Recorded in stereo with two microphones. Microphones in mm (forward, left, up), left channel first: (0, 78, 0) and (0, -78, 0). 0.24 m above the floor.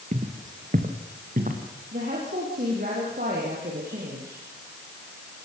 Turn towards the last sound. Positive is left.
turn(degrees=-65)  # may be behind; listen again after turning